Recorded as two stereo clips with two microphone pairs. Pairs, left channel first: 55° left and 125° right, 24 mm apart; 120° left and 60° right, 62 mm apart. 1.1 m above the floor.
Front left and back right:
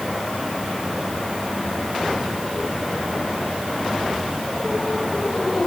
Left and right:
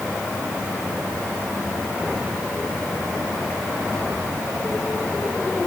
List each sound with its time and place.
Only background noise.